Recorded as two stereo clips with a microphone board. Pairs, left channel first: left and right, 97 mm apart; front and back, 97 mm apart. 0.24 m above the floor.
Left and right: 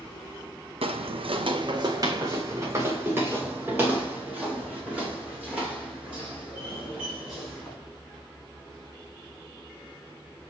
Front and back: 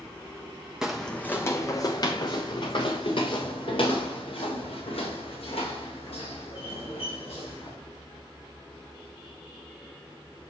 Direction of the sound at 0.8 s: 95° right.